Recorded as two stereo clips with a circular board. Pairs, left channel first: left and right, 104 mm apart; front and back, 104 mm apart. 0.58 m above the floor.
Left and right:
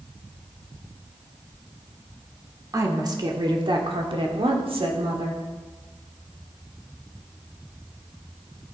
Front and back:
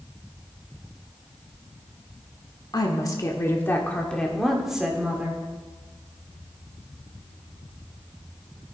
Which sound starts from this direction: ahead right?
A woman speaking, at 2.7 s.